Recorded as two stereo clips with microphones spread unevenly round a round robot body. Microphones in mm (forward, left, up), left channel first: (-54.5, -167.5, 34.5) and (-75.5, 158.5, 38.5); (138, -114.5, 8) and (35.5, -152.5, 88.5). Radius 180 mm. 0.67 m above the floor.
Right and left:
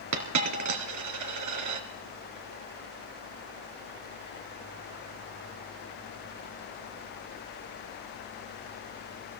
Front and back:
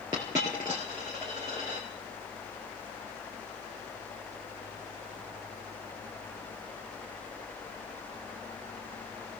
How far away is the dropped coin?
About 2.5 m.